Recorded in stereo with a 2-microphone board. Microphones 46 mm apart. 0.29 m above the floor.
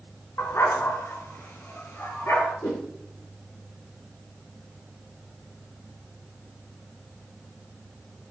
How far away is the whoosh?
About 2.5 m.